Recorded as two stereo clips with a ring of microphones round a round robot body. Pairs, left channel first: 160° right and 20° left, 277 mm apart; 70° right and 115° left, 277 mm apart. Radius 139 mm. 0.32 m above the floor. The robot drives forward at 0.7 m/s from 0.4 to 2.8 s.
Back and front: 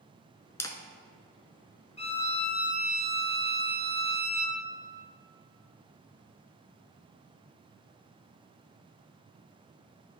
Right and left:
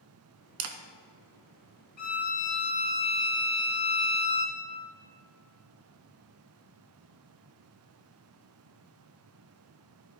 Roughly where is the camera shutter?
Behind left.